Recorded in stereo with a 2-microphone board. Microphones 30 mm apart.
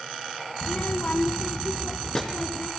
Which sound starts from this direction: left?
A child speaking, at 0.6 s.